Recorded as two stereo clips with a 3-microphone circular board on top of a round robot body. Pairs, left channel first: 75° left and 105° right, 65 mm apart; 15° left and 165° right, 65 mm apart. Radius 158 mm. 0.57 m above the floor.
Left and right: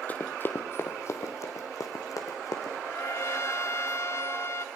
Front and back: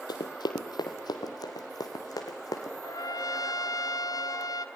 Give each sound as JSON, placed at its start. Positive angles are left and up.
{"t": 0.1, "sound": "running footsteps", "azimuth_deg": 10, "distance_m": 1.0}
{"t": 2.8, "sound": "a trumpet", "azimuth_deg": 30, "distance_m": 1.2}